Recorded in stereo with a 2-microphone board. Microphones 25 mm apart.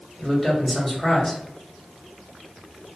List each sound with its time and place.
0.2 s a man speaking: 15° left (ahead or behind), 1.2 m